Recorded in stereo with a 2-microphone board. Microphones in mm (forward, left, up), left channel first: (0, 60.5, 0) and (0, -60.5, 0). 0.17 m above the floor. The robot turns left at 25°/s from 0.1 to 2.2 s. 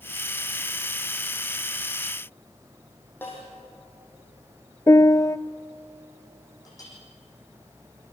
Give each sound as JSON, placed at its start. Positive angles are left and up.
{"t": 3.2, "sound": "a snare drum", "side_deg": 15, "distance_m": 6.5}
{"t": 4.9, "sound": "a piano", "side_deg": 25, "distance_m": 0.6}
{"t": 6.7, "sound": "a clink", "side_deg": 30, "distance_m": 7.5}